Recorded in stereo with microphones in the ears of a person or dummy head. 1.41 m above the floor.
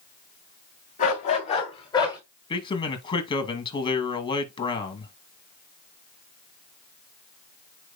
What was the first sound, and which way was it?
A dog barking, 40° left (ahead or behind).